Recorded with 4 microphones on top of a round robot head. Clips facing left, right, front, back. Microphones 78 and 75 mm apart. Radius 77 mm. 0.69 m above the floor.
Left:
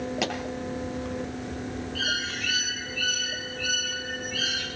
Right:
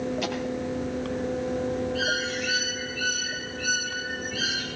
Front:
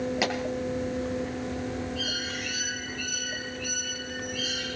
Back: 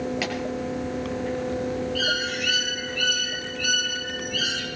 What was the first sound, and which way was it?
A pop, 70° left.